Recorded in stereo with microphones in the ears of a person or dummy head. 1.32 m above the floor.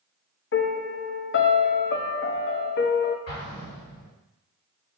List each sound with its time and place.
0.5 s a piano: 55° left (ahead or behind), 0.7 m
3.3 s an explosion: 50° left (ahead or behind), 3 m